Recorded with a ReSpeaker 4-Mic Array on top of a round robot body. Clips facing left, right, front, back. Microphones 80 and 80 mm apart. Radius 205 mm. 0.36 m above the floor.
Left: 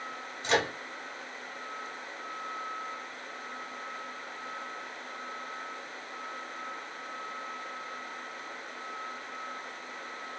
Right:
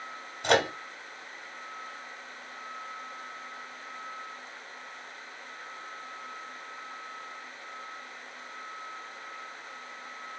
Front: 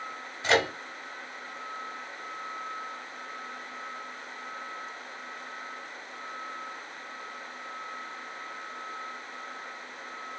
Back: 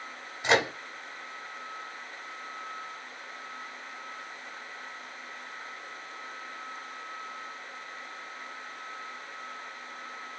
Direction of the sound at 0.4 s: 110° right.